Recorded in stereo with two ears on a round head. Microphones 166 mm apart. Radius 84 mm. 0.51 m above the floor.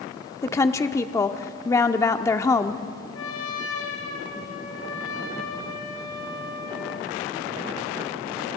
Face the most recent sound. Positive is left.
turn(degrees=75)  # may be behind; listen again after turning